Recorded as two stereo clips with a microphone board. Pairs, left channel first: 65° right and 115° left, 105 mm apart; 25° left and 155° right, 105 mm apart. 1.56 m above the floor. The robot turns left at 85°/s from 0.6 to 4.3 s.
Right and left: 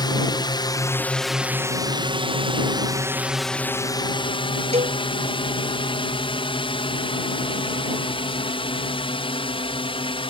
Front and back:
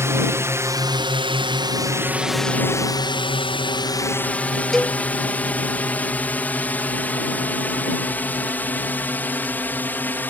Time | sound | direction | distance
0.0 | a drone | 100° right | ?
4.7 | a cowbell | 110° left | ?